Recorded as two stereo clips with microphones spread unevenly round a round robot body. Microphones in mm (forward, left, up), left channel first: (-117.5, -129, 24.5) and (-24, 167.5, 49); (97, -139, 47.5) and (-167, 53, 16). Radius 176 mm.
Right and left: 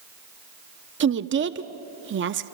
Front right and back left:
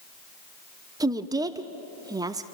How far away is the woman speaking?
About 0.7 m.